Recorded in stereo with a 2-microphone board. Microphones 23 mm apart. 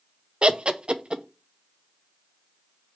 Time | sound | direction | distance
0.4 | laughter | 40° right (ahead or behind) | 0.5 m